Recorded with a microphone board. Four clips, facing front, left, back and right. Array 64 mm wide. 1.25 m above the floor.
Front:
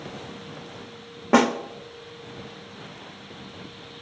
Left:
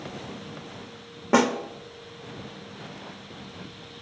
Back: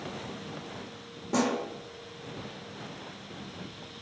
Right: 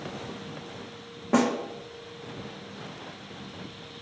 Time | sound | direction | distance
1.3 | a snare drum | 25° left | 0.6 m